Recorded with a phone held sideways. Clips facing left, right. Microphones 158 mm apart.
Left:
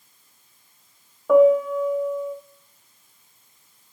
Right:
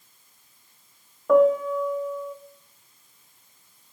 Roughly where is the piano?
Centre.